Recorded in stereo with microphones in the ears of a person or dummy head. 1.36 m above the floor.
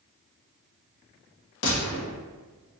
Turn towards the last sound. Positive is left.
turn(degrees=75)  # may be behind; listen again after turning